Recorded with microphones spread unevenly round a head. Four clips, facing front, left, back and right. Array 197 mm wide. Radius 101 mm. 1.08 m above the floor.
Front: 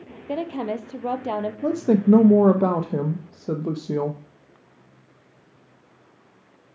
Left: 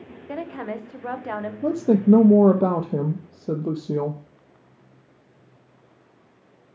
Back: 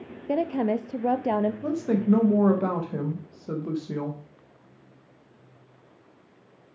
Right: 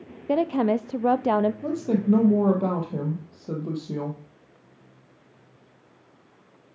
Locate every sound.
0.3 s a woman speaking: 85° right, 0.5 m
1.6 s a woman speaking: 55° left, 0.9 m